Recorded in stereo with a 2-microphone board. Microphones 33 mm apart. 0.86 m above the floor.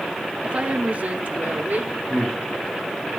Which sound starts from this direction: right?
A woman speaking, at 0.4 s.